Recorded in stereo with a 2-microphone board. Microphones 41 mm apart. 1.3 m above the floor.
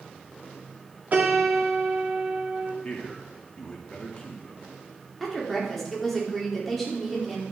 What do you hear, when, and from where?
1.1 s a piano: 45° right (ahead or behind), 1.8 m
2.8 s a man speaking: 25° left (ahead or behind), 2 m
5.2 s a woman speaking: 5° left (ahead or behind), 3 m